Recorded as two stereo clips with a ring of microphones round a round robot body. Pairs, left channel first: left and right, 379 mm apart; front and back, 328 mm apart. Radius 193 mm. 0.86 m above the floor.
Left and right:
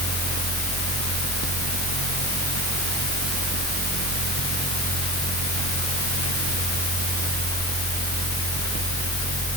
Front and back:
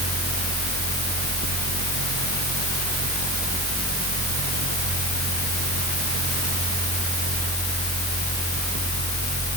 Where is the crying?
I don't hear crying.